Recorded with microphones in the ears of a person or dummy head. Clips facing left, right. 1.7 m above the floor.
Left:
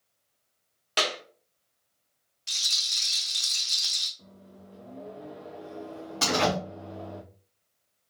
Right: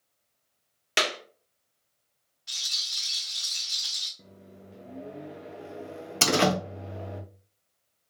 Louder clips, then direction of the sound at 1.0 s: Even; 25° right (ahead or behind).